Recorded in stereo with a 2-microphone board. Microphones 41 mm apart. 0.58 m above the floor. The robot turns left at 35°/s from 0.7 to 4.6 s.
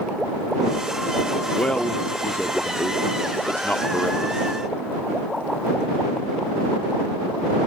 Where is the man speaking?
25° left (ahead or behind); by 4.4 s 35° left (ahead or behind).